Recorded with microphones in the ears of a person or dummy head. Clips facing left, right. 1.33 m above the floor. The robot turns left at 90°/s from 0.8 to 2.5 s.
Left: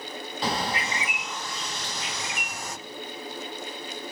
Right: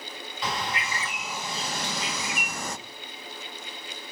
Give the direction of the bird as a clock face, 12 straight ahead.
11 o'clock.